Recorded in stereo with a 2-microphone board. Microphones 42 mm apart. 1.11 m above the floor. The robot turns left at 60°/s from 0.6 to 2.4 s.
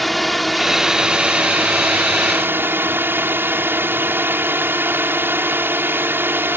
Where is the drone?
5° left; by 6.6 s 105° right.